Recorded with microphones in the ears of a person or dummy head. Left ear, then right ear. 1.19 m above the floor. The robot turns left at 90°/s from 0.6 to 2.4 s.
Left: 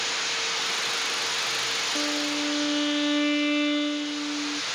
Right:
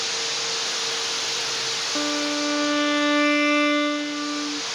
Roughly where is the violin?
Right.